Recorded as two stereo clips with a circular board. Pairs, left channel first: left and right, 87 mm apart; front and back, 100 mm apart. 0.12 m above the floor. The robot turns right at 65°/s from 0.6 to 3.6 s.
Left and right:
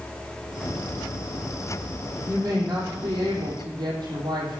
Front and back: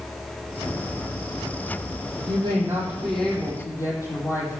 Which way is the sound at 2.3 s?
145° right.